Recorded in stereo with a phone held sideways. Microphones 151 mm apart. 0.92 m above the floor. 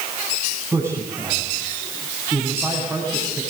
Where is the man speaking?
15° right (ahead or behind), 8 m.